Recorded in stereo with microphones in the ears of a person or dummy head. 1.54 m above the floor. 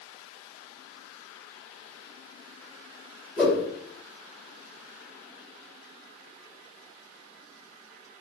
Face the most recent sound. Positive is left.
turn(degrees=0)  # may be behind; listen again after turning